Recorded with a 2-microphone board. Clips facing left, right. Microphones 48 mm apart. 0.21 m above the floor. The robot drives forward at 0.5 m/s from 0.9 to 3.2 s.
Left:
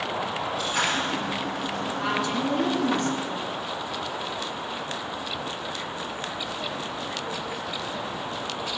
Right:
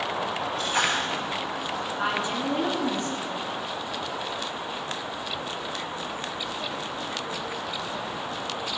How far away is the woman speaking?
About 2.5 m.